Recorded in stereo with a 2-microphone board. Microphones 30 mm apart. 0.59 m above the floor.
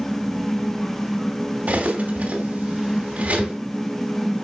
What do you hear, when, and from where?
1.7 s cutlery clinking: 60° right (ahead or behind), 2.5 m